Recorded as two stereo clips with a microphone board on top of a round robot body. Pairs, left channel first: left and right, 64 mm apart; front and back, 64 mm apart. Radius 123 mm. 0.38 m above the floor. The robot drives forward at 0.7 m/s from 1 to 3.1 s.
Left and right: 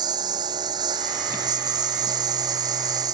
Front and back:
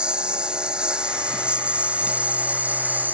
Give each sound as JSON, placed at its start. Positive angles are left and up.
{"t": 0.0, "sound": "a lawn mower", "azimuth_deg": -100}